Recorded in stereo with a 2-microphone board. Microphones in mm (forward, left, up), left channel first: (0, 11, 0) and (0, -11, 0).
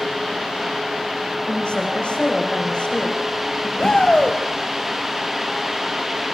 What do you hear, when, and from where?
1.5 s a woman speaking: 55° left (ahead or behind), 7 m
3.8 s a shout: 50° left (ahead or behind), 3 m